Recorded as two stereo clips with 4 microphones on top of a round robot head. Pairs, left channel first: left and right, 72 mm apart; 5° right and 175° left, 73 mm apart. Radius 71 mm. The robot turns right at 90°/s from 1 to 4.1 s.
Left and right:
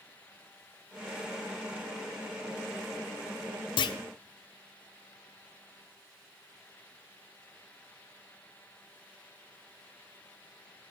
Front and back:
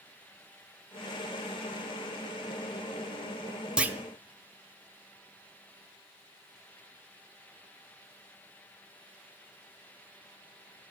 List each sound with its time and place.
3.8 s a clunk: 95° left, 0.9 m; by 4.0 s 115° left, 0.9 m